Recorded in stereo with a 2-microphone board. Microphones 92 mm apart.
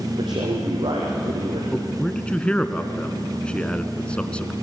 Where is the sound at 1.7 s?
10° left (ahead or behind), 1.4 m.